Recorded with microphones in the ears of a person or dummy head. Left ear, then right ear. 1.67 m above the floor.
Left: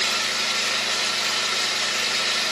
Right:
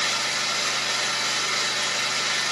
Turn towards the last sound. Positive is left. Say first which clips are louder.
# left 1 dB
turn(degrees=15)  # may be behind; listen again after turning